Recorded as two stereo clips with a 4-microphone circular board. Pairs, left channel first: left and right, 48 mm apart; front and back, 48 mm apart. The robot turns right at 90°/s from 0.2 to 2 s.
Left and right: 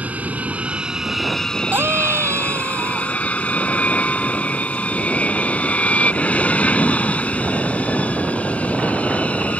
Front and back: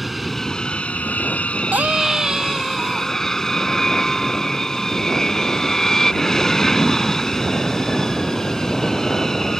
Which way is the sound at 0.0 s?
95° right.